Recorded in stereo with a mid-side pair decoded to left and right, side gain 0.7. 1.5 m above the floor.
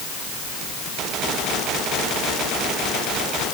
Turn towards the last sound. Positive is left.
No sound to turn to.